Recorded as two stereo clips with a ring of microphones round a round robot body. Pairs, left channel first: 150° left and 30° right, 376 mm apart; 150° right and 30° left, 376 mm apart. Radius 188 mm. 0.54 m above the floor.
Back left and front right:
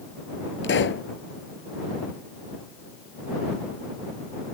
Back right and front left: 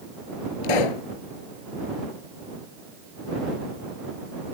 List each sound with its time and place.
0.6 s a pop: 150° right